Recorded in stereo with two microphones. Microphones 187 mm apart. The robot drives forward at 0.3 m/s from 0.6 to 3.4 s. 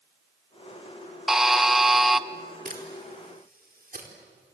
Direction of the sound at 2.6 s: 55° right (ahead or behind).